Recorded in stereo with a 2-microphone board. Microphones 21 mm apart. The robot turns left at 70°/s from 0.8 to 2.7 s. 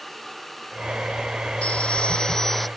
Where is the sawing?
80° left; by 2.7 s 5° left.